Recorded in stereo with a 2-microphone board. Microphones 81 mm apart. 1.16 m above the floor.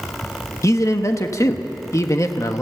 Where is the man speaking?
40° left (ahead or behind), 1.3 m.